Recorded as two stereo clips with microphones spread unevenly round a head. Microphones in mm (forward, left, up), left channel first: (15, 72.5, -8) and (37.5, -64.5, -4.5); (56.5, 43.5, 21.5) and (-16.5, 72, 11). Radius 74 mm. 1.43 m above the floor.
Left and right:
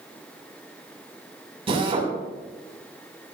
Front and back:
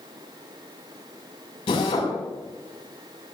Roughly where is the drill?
Ahead right.